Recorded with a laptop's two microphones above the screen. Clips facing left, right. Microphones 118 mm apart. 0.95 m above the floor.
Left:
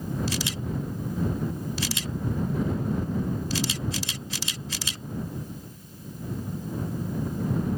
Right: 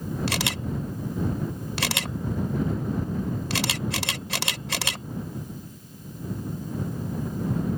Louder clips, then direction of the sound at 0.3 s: Right 1 dB; 65° right (ahead or behind).